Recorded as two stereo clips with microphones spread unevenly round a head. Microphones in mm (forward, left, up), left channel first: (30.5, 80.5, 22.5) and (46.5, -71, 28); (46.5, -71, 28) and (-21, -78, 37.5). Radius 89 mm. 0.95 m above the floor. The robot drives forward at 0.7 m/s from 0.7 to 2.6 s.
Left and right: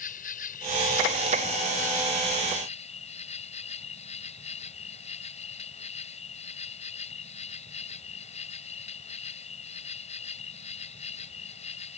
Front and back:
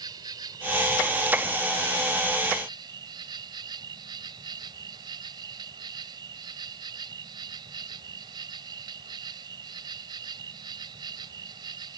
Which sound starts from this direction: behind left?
An insect, at 0.0 s.